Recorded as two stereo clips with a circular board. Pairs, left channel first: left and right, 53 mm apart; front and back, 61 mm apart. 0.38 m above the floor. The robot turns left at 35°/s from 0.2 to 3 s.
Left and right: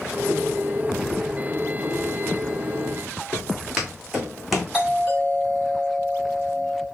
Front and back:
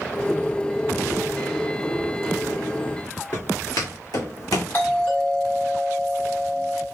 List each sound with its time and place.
3.3 s footsteps: 10° right, 2 m; by 4.6 s straight ahead, 1.3 m
4.7 s a doorbell: 20° right, 2.5 m